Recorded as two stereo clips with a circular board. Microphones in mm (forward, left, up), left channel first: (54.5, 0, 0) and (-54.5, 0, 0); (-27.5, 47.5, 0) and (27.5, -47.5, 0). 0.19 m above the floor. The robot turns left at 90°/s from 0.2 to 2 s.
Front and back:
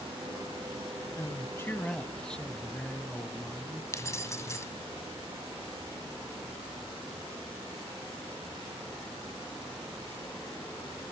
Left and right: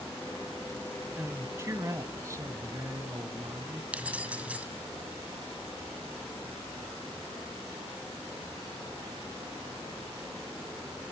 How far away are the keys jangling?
About 1.1 m.